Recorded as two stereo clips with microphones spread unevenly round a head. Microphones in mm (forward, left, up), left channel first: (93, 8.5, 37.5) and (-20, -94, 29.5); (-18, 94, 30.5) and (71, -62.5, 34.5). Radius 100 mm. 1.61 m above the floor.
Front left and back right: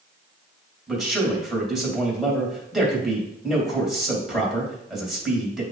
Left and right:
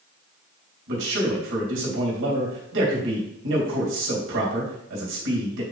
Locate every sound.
0.9 s a man speaking: 50° right, 2.5 m